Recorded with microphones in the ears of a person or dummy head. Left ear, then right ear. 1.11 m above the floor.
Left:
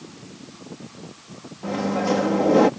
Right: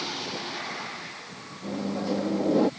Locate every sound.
1.6 s a microwave: 60° left (ahead or behind)